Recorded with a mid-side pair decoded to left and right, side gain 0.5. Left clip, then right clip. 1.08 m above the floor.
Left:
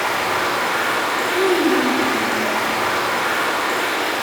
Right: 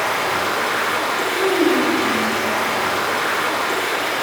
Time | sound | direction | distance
0.0 | running water | straight ahead | 2.5 m
1.3 | a child speaking | 40° left | 2 m